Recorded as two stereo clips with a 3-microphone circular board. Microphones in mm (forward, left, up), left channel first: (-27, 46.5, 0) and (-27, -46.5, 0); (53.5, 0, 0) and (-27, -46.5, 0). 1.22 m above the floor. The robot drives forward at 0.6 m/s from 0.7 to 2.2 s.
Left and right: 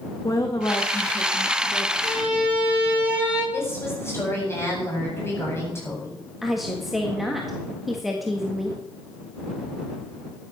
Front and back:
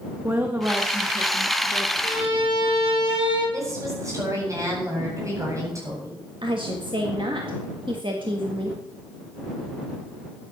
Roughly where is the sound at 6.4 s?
Behind.